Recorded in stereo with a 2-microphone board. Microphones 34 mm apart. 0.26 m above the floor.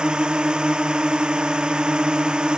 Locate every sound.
0.0 s a drone: 30° right (ahead or behind)